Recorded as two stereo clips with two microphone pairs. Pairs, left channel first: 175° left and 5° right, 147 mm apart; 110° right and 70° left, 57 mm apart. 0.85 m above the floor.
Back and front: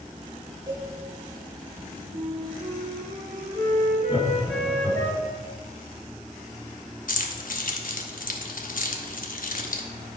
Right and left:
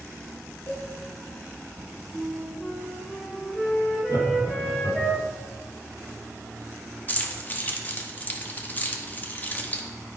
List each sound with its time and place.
0.7 s a cowbell: 65° right, 3.5 m
2.1 s a flute: 25° right, 1.8 m
4.1 s laughter: 85° right, 2.5 m
7.1 s keys jangling: 170° right, 1.0 m